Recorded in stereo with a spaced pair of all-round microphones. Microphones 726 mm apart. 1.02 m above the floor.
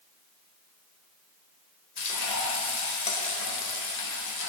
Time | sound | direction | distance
2.0 | frying | 65° left (ahead or behind) | 0.9 m